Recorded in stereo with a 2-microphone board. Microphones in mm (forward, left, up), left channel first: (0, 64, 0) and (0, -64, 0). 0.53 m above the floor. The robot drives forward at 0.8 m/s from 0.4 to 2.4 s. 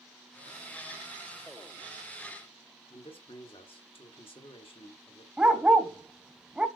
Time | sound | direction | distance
2.9 | a man speaking | 45° left (ahead or behind) | 1.5 m
5.4 | a dog barking | 10° right (ahead or behind) | 0.8 m